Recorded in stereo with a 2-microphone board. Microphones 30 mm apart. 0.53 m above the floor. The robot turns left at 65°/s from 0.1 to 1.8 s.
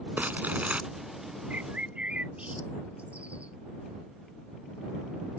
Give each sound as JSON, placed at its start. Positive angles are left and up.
{"t": 0.2, "sound": "crumpling", "azimuth_deg": -90}
{"t": 1.5, "sound": "a bird", "side_deg": -70}